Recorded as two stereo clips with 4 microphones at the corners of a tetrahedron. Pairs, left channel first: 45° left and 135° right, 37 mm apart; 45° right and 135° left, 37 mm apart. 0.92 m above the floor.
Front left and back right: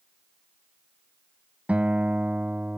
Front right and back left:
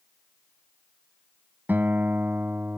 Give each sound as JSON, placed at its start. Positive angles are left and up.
{"t": 1.7, "sound": "a guitar", "azimuth_deg": 170}